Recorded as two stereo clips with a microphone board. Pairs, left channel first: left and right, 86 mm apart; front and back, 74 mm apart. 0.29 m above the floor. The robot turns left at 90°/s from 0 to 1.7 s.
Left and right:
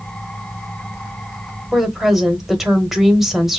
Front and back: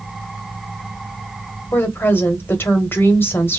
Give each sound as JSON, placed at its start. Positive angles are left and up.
{"t": 1.7, "sound": "a woman speaking", "azimuth_deg": -10, "distance_m": 1.0}